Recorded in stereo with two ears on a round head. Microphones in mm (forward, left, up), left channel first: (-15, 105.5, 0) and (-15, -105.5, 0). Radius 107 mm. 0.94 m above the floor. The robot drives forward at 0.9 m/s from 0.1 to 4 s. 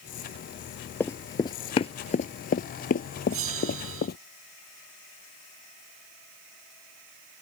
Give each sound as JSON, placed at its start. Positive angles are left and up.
{"t": 1.0, "sound": "running footsteps", "side_deg": 10}
{"t": 3.3, "sound": "a bell", "side_deg": -65}